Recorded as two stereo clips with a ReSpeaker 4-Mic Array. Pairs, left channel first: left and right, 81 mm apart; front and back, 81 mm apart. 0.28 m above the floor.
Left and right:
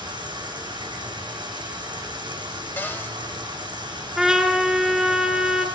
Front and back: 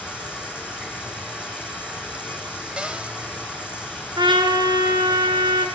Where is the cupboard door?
115° left, 1.5 m.